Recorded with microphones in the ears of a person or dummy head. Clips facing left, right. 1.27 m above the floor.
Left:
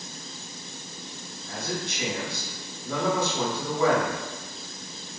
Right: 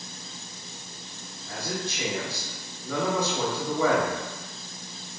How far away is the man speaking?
About 1.5 m.